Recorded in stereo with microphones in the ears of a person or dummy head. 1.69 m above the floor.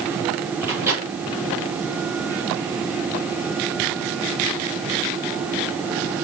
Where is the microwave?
15° right (ahead or behind), 4.5 m.